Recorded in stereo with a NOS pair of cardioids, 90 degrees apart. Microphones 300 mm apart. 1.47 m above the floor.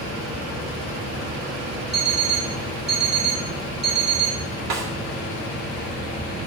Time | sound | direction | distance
1.9 | an alarm clock | 35° right | 2.5 m
4.7 | a snare drum | 60° right | 2 m